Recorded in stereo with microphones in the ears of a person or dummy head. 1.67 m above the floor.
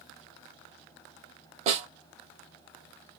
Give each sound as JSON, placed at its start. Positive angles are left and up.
{"t": 1.7, "sound": "a snare drum", "side_deg": -35, "distance_m": 0.9}